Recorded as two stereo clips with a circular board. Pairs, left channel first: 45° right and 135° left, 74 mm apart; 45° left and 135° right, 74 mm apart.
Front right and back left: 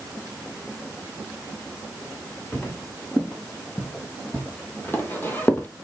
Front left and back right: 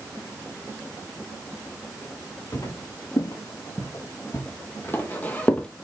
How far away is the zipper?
No zipper in this recording.